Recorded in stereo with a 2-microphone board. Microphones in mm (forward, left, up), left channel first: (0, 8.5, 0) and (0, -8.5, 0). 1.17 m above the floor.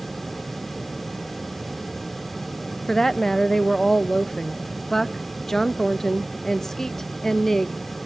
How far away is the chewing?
No chewing in this recording.